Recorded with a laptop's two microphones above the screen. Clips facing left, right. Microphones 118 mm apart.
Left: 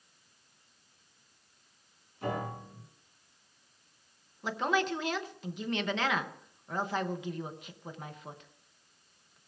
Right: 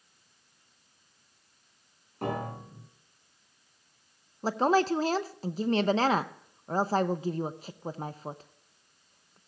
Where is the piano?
70° right (ahead or behind), 6.5 m.